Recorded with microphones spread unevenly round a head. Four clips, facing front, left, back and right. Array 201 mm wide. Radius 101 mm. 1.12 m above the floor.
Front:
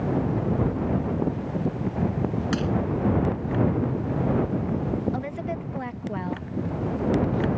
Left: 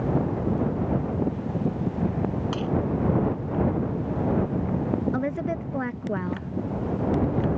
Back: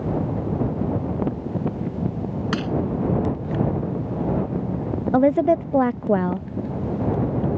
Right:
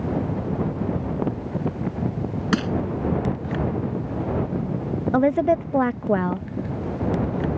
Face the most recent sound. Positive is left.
turn(degrees=-155)